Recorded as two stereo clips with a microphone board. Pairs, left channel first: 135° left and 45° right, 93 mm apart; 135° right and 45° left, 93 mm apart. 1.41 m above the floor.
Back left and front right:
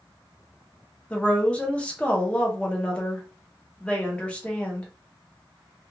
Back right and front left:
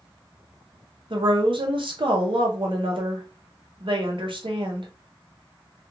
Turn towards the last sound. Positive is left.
turn(degrees=60)